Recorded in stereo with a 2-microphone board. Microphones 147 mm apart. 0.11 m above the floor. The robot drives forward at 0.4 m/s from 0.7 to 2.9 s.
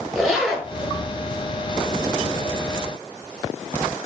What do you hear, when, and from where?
0.1 s a zipper: 5° right (ahead or behind), 1.4 m